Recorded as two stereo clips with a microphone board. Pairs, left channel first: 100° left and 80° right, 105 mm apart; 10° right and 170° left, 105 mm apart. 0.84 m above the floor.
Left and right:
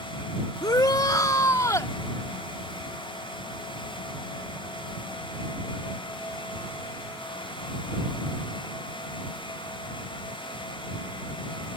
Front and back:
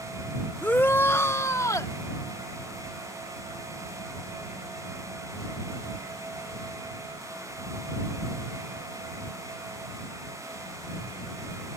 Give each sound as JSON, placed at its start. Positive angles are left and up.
{"t": 0.6, "sound": "a shout", "azimuth_deg": 60}